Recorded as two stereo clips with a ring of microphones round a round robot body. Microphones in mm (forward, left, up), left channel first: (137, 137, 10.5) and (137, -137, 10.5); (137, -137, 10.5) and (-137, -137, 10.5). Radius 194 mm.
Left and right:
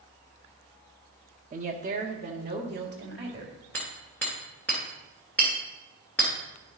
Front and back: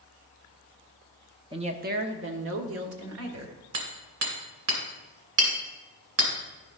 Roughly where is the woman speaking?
Behind right.